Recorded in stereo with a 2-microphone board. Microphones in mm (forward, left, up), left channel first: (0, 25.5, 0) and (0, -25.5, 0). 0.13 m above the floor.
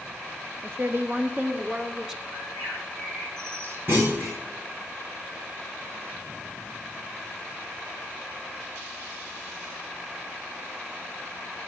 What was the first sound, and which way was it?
A woman speaking, 50° right (ahead or behind).